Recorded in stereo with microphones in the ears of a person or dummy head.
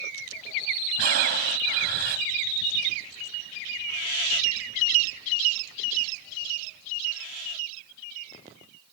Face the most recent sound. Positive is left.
turn(degrees=-55)  # may be behind; listen again after turning